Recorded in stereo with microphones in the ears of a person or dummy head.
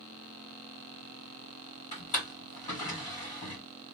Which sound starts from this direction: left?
A drawer, at 1.9 s.